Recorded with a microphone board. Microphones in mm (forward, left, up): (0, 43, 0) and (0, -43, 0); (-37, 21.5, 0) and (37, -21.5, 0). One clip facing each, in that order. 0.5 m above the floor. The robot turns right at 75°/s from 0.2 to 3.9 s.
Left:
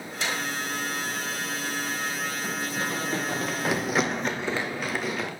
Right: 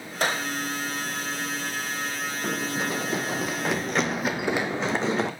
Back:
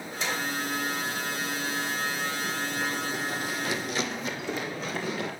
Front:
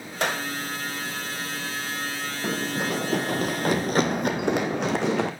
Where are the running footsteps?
35° right, 1.7 m; by 5.3 s 30° right, 2.5 m.